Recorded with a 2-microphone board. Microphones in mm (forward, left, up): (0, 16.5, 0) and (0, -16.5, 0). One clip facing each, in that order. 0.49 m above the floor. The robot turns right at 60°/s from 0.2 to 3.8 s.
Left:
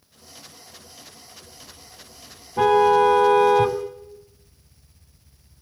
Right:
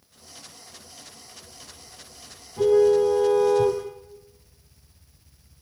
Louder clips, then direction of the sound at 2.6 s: Left 2 dB; 55° left.